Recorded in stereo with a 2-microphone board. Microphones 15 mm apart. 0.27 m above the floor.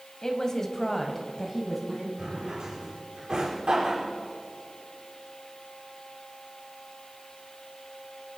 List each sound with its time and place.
0.2 s a woman speaking: 40° left (ahead or behind), 1.6 m; by 2.1 s 5° right (ahead or behind), 2.5 m
2.2 s a drawer: 60° right (ahead or behind), 4 m